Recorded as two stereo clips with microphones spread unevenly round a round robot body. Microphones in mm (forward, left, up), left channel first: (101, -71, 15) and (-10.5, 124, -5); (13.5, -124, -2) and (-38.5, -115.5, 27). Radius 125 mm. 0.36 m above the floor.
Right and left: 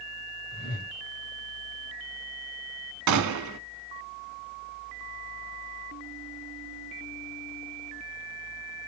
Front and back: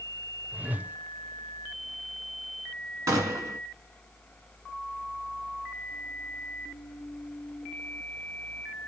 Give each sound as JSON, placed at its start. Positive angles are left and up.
{"t": 0.5, "sound": "a whoosh", "azimuth_deg": -110, "distance_m": 0.6}
{"t": 3.1, "sound": "a gunshot", "azimuth_deg": 145, "distance_m": 0.6}